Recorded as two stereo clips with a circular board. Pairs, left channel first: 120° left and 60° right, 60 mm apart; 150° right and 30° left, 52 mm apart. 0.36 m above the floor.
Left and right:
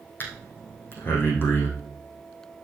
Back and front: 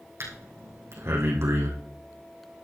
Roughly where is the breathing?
Ahead left.